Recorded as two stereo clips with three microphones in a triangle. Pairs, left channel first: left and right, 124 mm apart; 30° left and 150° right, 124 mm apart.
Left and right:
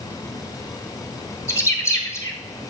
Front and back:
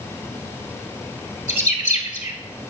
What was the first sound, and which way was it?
A bird, 25° left.